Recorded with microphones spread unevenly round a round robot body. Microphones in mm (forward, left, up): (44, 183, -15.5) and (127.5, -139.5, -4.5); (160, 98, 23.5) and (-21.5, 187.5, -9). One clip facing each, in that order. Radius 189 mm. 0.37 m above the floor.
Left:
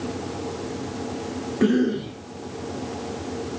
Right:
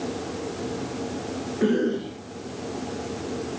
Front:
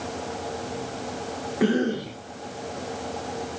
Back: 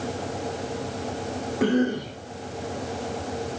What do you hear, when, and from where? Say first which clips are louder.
1.6 s a cough: left 3 dB, even; 60° left, 5 m